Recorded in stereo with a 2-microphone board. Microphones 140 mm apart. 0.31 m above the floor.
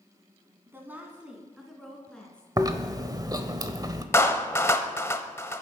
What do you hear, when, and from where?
0.7 s a woman speaking: 20° right (ahead or behind), 2.5 m; by 2.5 s 10° left (ahead or behind), 3 m
2.6 s chewing: 30° right (ahead or behind), 0.9 m
4.1 s a clap: 20° left (ahead or behind), 0.9 m